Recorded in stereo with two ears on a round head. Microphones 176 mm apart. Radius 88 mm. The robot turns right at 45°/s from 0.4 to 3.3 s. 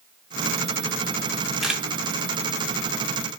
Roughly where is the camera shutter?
Centre.